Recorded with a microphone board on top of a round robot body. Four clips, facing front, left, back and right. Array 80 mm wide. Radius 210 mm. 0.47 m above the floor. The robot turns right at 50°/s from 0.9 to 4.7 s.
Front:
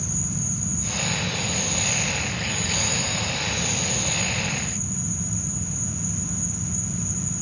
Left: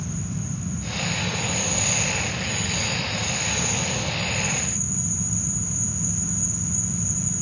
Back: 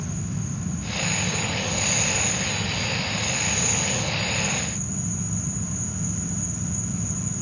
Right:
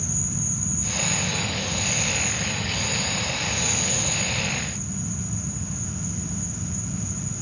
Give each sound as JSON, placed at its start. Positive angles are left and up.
{"t": 0.0, "sound": "an insect", "azimuth_deg": 80}